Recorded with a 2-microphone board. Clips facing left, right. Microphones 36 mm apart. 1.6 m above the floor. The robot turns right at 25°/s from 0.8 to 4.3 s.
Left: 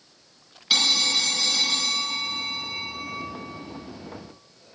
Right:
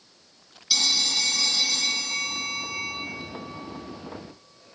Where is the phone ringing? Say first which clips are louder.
Left 3 dB; 70° left, 0.6 m; by 3.0 s 125° left, 0.6 m.